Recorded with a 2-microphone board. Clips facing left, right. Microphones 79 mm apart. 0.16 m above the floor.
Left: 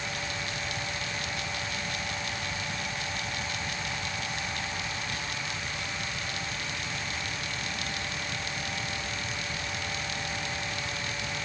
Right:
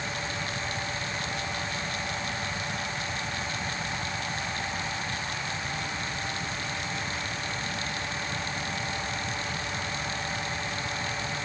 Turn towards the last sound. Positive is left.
No sound to turn to.